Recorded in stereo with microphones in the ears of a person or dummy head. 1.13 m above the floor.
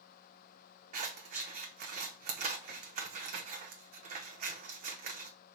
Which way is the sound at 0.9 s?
40° right (ahead or behind).